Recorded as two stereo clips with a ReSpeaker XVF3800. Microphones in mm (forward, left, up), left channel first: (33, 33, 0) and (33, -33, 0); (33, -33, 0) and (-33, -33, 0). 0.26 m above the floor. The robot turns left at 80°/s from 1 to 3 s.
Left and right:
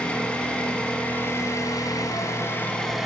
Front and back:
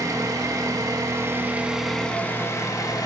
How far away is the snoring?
I don't hear snoring.